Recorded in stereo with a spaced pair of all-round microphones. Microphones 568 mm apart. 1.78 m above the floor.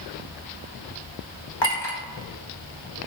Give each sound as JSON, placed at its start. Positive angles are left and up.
{"t": 1.6, "sound": "a clink", "side_deg": 55, "distance_m": 1.4}